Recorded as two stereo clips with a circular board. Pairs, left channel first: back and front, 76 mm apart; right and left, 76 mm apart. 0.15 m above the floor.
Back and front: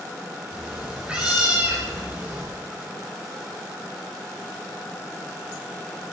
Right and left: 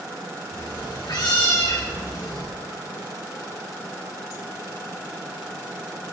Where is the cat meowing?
75° right, 10 m; by 2.4 s 70° right, 11.5 m.